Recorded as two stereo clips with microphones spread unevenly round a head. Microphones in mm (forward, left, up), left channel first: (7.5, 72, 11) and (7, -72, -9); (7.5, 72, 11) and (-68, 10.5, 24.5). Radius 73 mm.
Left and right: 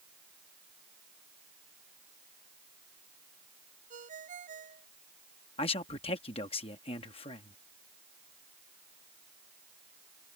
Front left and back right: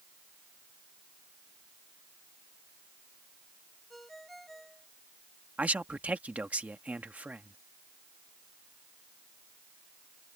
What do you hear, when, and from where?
3.9 s a ringtone: 50° right
5.6 s a man speaking: 145° left